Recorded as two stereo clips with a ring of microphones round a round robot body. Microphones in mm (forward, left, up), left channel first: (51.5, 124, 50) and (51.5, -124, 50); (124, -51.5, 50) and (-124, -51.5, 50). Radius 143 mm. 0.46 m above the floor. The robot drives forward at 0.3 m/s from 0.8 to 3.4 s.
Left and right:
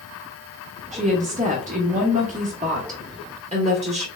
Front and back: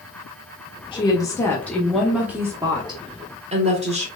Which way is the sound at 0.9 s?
55° right.